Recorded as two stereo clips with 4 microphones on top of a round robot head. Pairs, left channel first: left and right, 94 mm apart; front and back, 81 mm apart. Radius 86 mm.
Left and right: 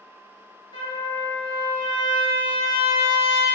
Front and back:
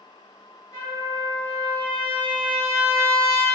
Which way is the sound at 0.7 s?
55° left.